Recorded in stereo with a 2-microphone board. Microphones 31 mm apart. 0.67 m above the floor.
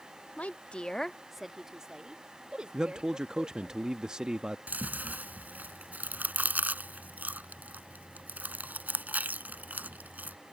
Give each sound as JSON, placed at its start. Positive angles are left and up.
{"t": 0.4, "sound": "a woman speaking", "side_deg": 55}
{"t": 2.7, "sound": "a man speaking", "side_deg": -30}
{"t": 4.7, "sound": "chewing", "side_deg": -75}